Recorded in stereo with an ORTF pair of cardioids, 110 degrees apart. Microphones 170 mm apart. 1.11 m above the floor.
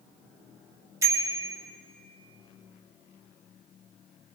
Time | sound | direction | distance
1.0 | a bicycle bell | 20° right | 2.5 m